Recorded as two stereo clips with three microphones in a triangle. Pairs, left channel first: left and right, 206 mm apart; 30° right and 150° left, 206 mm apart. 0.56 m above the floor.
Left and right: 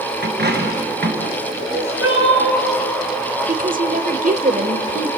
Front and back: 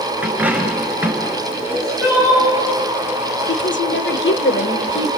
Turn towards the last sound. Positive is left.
turn(degrees=-45)